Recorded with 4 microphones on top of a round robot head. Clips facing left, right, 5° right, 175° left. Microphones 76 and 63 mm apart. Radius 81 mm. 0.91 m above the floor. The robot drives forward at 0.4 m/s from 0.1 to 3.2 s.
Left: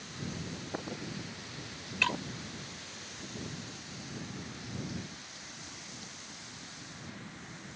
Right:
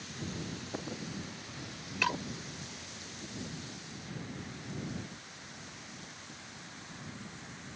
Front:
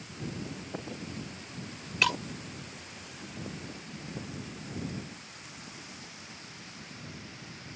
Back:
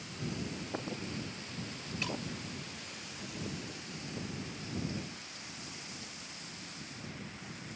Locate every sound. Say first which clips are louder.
2.0 s breaking glass: even, front 10 dB; 10° right